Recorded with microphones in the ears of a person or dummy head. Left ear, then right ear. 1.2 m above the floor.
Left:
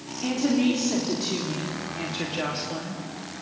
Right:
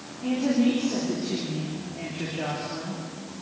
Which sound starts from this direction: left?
A woman speaking, at 0.2 s.